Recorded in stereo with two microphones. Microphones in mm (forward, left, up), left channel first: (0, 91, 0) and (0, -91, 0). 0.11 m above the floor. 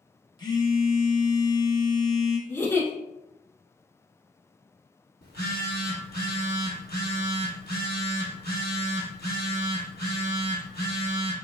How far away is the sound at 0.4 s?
About 0.6 m.